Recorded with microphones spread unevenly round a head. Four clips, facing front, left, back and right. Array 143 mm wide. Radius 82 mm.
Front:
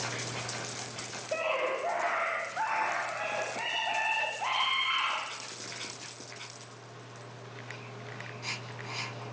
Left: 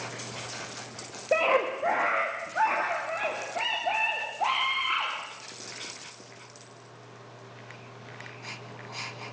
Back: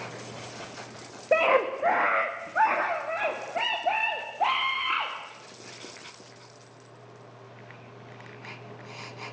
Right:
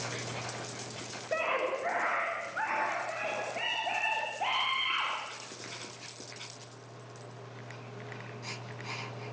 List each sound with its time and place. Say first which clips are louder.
1.3 s a scream: left 7 dB, back 9 dB; 145° left, 1.8 m; by 5.1 s straight behind, 4 m